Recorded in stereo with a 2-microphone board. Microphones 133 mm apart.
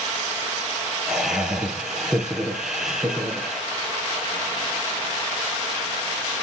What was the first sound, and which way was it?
Laughter, 5° right (ahead or behind).